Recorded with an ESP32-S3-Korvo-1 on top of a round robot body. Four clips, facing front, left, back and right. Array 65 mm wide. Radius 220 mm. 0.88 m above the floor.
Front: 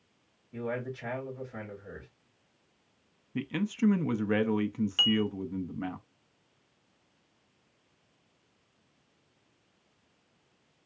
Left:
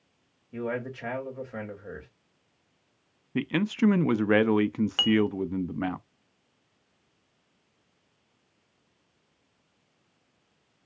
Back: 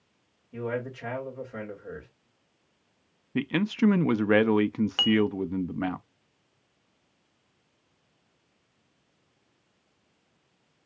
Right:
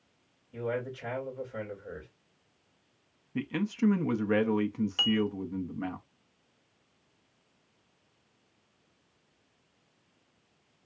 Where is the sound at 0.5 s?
105° left, 2.5 m.